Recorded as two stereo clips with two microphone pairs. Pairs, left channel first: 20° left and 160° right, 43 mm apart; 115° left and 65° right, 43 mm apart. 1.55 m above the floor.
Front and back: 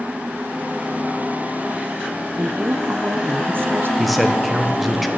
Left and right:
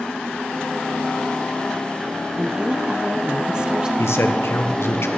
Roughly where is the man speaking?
Left.